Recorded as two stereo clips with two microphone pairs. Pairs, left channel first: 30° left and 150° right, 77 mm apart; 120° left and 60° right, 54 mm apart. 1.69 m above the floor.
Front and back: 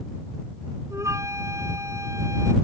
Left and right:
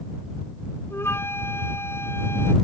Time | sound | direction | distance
0.9 | a flute | 160° left | ?